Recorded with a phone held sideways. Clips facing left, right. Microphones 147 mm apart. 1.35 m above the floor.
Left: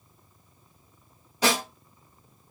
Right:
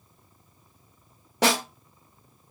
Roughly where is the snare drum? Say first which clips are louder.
Right 2 dB; right.